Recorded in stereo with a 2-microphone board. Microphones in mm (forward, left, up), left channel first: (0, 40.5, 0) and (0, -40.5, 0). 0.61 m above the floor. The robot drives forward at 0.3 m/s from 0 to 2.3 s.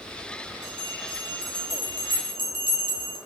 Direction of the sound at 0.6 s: 65° right (ahead or behind).